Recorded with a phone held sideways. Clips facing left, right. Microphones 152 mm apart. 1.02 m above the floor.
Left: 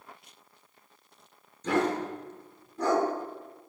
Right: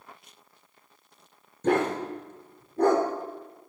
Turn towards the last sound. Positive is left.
turn(degrees=-55)  # may be behind; listen again after turning